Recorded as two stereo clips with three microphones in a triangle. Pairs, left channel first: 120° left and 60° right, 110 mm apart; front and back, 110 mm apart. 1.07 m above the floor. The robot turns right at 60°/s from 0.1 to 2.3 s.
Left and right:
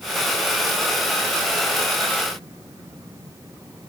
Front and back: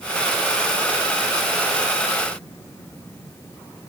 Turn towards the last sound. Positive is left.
No sound to turn to.